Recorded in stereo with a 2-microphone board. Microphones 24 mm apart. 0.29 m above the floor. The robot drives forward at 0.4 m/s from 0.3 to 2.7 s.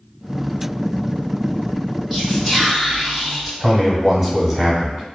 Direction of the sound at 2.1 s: Centre (ahead or behind).